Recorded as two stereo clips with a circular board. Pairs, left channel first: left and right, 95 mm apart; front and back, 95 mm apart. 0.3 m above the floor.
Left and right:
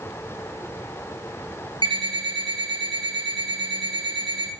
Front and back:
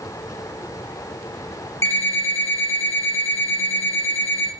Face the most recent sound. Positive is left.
turn(degrees=-60)